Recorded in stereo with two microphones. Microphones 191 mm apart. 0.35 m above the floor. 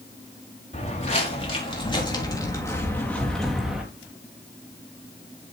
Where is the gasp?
I don't hear a gasp.